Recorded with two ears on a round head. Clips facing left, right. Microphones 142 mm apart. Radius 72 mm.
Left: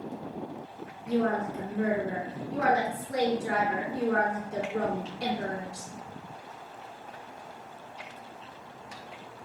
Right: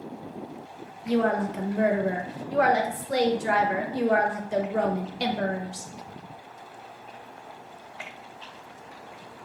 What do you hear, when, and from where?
1.1 s a woman speaking: 70° right (ahead or behind), 0.9 m